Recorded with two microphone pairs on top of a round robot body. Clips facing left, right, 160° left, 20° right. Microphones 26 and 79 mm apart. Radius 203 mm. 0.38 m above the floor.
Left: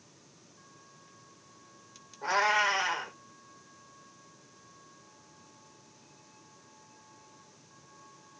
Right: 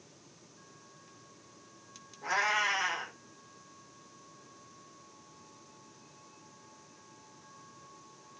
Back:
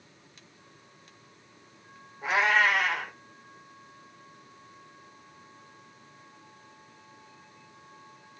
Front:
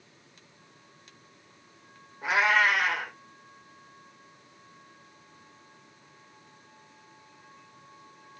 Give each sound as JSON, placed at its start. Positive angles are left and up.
{"t": 2.2, "sound": "a cat meowing", "azimuth_deg": 65, "distance_m": 3.5}